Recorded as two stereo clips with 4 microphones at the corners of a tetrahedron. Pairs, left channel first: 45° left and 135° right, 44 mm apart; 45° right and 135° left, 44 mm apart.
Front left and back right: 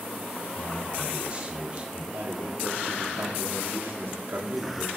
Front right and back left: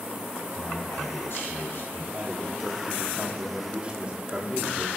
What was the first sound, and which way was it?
A man speaking, 70° right.